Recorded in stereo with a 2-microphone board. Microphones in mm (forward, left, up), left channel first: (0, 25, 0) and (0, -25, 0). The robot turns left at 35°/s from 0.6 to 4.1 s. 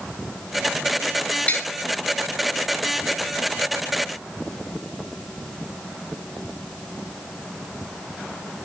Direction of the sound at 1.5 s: 25° left (ahead or behind).